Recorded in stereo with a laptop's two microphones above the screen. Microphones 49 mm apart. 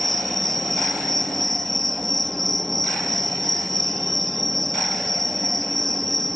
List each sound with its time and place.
0.0 s an insect: 5° left (ahead or behind)